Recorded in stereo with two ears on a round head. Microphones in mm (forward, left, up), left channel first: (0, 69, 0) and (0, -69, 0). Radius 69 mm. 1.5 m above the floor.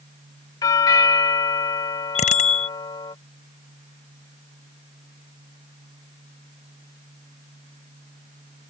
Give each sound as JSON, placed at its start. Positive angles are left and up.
{"t": 0.6, "sound": "a doorbell", "side_deg": 25}
{"t": 2.1, "sound": "a bicycle bell", "side_deg": 50}